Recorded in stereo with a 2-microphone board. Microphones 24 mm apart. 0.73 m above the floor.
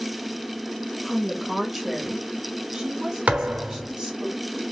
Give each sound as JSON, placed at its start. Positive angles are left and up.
{"t": 1.0, "sound": "a woman speaking", "side_deg": 0, "distance_m": 1.0}
{"t": 3.3, "sound": "a thud", "side_deg": -75, "distance_m": 1.1}